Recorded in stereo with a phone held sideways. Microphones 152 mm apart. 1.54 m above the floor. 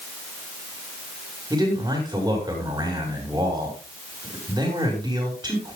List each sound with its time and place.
1.5 s a man speaking: 25° right (ahead or behind), 7 m